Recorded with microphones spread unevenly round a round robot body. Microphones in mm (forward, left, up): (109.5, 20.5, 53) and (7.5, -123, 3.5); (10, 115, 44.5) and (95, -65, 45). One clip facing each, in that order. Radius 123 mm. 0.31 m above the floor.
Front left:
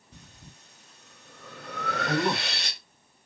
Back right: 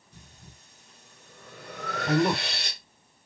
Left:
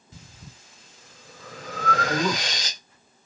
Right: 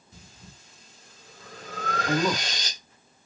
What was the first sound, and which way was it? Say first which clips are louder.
Breathing: front left 2 dB, left 3 dB; 105° left.